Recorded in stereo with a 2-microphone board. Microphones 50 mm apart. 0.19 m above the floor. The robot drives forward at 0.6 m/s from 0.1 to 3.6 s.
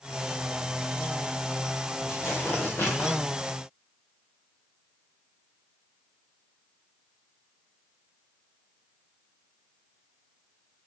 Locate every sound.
2.1 s tearing paper: 55° left (ahead or behind), 2.5 m; by 3.2 s 40° left (ahead or behind), 3 m